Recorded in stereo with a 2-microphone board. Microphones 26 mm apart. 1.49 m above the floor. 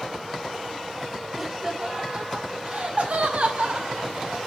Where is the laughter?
15° right (ahead or behind), 1.2 m; by 4.4 s 80° right, 2.0 m.